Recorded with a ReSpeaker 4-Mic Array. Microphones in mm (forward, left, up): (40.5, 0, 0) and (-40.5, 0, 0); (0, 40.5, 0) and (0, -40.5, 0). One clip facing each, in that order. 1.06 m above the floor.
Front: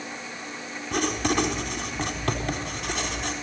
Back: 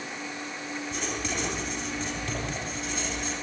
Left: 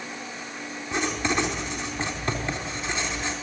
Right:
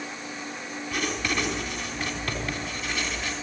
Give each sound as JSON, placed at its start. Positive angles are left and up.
{"t": 0.9, "sound": "writing", "azimuth_deg": 25, "distance_m": 4.0}